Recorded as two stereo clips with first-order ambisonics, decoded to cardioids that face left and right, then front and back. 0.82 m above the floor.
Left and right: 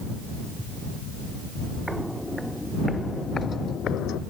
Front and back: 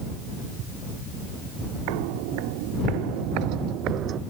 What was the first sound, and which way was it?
Footsteps, straight behind.